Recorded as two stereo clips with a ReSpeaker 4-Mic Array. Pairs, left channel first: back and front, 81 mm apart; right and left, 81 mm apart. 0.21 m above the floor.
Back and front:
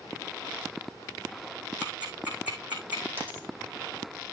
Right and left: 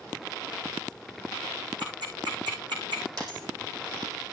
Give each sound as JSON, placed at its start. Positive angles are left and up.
{"t": 1.8, "sound": "ticking", "azimuth_deg": 70, "distance_m": 4.5}
{"t": 3.2, "sound": "a dropped coin", "azimuth_deg": 65, "distance_m": 4.0}